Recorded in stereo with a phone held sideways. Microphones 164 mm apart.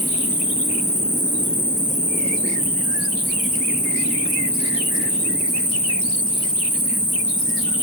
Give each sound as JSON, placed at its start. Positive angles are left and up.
{"t": 0.0, "sound": "an insect", "side_deg": 75, "distance_m": 4.5}